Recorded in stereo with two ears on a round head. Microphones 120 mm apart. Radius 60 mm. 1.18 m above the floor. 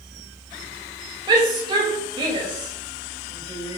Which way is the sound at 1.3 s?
35° right (ahead or behind).